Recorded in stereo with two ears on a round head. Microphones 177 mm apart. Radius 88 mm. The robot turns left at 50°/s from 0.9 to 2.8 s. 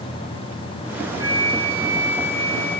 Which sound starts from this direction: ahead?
A flute, at 1.2 s.